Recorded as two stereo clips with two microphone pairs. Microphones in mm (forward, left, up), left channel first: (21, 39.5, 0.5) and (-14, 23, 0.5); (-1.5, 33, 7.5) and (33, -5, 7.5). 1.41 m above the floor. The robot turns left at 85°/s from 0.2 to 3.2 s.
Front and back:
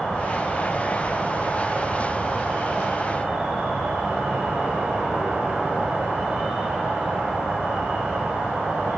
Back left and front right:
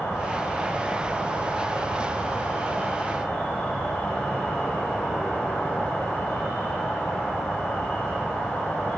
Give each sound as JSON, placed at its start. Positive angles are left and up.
{"t": 0.0, "sound": "an insect", "azimuth_deg": 90, "distance_m": 1.7}